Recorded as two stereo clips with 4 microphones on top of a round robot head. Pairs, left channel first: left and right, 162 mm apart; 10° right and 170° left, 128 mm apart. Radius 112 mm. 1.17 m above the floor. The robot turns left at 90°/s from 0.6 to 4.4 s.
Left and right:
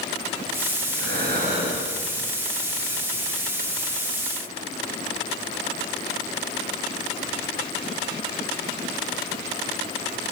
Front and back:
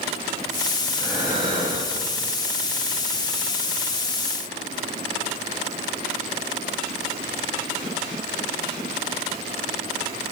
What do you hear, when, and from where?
0.9 s breathing: 85° right, 9.5 m; by 2.2 s 155° left, 9.5 m